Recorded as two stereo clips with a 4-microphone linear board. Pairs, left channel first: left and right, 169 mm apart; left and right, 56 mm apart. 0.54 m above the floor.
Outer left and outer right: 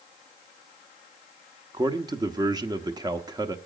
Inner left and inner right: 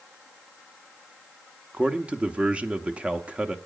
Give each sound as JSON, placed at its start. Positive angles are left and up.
{"t": 1.7, "sound": "a man speaking", "side_deg": -20, "distance_m": 0.9}